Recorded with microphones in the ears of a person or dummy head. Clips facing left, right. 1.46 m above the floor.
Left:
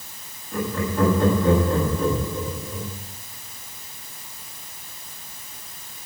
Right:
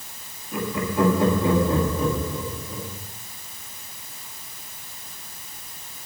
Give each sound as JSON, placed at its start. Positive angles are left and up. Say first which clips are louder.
{"t": 0.5, "sound": "laughter", "louder": "even", "side_deg": -10, "distance_m": 7.0}